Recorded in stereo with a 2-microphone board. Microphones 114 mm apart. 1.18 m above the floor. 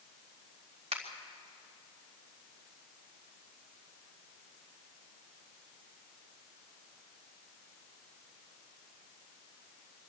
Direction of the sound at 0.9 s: 85° right.